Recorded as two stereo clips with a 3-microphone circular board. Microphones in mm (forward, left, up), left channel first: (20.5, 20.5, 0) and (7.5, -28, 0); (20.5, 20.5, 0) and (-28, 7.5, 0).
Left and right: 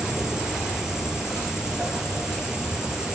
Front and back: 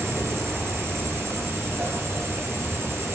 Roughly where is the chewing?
No chewing in this recording.